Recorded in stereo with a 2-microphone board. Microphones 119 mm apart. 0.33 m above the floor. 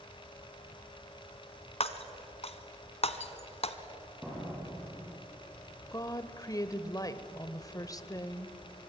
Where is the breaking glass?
55° left (ahead or behind), 1.2 m.